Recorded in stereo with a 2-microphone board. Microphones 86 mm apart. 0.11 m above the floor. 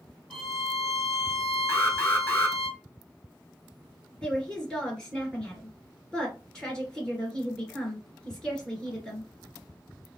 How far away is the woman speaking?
About 1.8 m.